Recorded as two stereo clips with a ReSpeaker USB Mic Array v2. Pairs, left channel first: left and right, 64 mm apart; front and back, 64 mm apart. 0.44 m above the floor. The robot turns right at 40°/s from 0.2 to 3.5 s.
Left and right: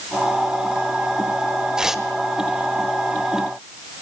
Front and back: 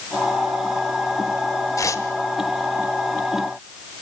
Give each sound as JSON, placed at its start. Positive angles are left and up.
{"t": 1.8, "sound": "tearing paper", "azimuth_deg": -15, "distance_m": 1.3}